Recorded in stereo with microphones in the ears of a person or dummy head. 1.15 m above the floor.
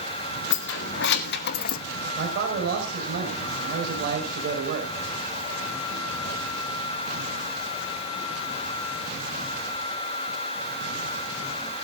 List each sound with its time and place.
0.5 s keys jangling: 75° left (ahead or behind), 1.9 m; by 1.8 s 45° left (ahead or behind), 0.7 m
2.2 s a man speaking: 50° right (ahead or behind), 5 m